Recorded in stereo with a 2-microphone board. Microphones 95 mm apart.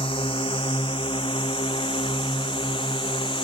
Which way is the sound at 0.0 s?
75° left (ahead or behind).